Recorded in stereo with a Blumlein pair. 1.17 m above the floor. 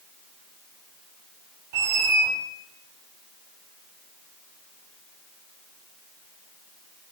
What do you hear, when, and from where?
1.7 s a squeak: 45° right, 2.5 m